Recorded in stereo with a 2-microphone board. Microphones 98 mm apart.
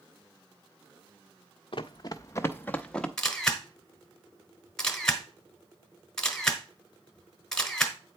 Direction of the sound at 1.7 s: 60° left (ahead or behind).